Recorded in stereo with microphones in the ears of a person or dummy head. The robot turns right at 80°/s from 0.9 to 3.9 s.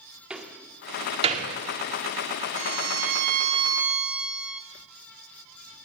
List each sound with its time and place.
0.3 s a door slam: 5° right (ahead or behind), 1.9 m; by 1.5 s 55° right (ahead or behind), 1.9 m
2.6 s a violin: 115° right, 2.5 m; by 4.6 s 5° right, 2.5 m